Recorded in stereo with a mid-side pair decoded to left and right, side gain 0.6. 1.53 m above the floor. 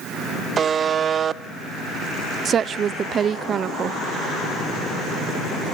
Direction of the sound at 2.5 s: 40° right.